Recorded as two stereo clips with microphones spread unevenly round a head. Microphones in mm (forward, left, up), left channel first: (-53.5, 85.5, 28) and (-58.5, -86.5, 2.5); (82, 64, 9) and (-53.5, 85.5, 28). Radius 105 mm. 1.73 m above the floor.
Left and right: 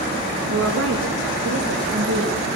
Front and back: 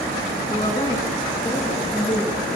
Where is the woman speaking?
80° right, 3.5 m.